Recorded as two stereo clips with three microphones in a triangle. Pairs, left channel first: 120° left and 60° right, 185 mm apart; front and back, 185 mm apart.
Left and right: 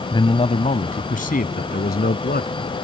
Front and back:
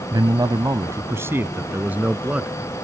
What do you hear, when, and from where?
0.1 s a man speaking: 145° left; by 2.9 s 95° left